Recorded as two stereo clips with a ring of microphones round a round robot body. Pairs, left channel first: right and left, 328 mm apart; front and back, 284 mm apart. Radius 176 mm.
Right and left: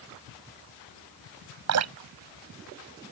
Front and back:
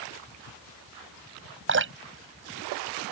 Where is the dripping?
135° left.